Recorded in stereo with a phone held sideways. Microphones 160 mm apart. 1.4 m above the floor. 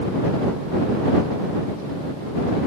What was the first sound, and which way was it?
Only background noise.